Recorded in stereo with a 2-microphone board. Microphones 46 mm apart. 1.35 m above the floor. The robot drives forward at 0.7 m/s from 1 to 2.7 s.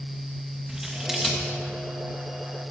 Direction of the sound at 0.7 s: 10° right (ahead or behind).